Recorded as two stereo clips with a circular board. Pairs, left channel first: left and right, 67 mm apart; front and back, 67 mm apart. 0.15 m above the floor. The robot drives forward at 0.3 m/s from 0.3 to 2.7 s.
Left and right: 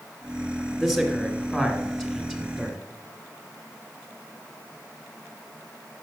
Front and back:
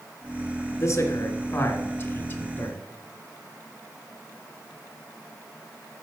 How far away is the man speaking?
About 1.5 m.